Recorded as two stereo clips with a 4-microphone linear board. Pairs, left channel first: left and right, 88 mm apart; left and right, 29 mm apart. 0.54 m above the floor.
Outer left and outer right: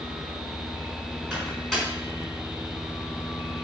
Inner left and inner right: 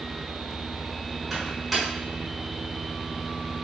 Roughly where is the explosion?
No explosion in this recording.